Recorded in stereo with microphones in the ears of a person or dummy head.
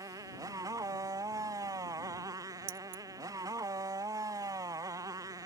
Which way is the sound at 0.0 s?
20° right (ahead or behind).